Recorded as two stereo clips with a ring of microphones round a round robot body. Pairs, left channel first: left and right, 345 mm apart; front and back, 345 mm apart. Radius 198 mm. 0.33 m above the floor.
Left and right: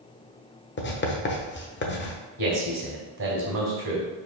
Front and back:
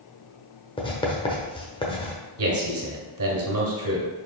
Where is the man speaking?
135° right, 2.5 m.